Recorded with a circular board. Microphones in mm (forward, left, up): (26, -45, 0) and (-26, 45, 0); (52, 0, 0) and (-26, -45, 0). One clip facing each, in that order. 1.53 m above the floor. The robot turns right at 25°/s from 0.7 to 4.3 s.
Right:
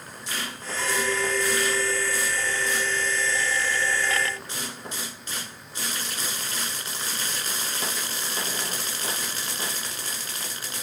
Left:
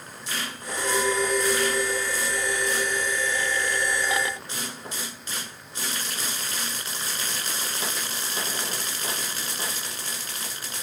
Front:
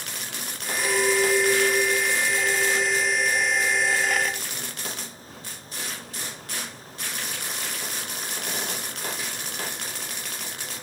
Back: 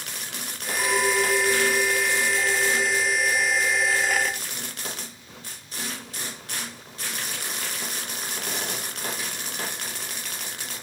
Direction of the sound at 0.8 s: 155° right.